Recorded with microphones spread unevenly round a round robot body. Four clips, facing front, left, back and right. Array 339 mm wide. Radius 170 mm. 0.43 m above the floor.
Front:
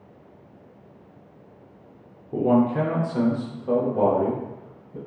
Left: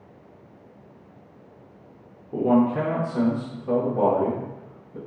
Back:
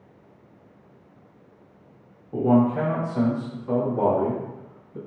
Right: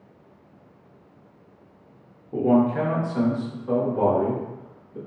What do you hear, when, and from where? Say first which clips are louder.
2.3 s a man speaking: even, even; 10° left, 0.9 m; by 5.0 s 15° left, 2 m